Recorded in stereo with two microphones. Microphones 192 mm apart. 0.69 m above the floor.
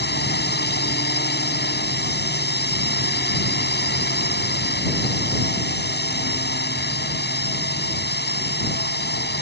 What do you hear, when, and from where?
0.0 s a drone: 60° left (ahead or behind)